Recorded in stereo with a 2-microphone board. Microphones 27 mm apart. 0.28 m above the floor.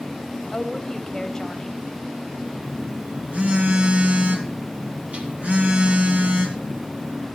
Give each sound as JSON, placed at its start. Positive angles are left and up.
{"t": 0.5, "sound": "a woman speaking", "side_deg": 25, "distance_m": 1.1}
{"t": 2.5, "sound": "a phone buzzing", "side_deg": -55, "distance_m": 1.9}